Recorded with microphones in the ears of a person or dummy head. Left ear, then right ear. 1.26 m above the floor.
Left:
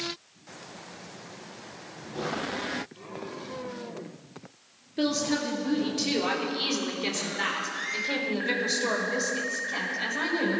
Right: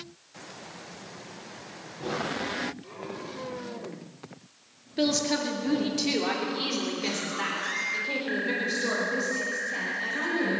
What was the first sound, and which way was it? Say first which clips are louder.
A woman speaking: right 1 dB; 15° right (ahead or behind).